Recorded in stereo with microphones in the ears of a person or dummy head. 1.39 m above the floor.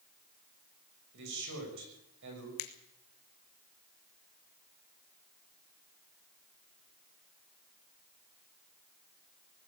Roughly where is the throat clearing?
I don't hear throat clearing.